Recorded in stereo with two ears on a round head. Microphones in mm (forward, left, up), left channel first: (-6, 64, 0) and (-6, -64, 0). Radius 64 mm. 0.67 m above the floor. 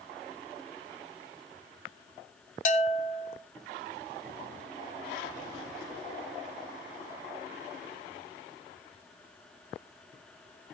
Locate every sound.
2.6 s a bell: 60° left (ahead or behind), 1.2 m